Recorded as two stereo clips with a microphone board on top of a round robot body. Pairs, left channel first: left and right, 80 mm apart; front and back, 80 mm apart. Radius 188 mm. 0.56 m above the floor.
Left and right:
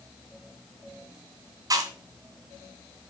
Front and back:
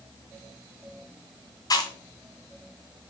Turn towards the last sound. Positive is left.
turn(degrees=-45)